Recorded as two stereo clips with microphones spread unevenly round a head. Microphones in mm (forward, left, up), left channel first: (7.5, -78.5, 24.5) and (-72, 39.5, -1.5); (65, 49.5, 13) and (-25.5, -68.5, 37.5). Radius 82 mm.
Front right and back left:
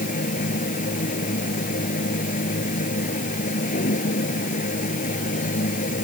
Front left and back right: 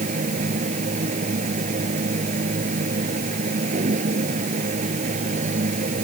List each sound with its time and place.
0.0 s a machine running: 85° right